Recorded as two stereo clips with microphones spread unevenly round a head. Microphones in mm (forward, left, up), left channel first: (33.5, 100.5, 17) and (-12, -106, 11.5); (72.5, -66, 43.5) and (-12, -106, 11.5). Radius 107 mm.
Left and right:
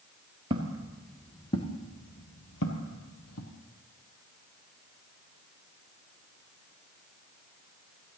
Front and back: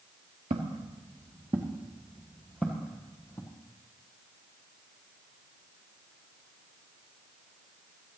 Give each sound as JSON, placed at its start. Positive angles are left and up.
{"t": 0.5, "sound": "footsteps", "azimuth_deg": -165, "distance_m": 1.6}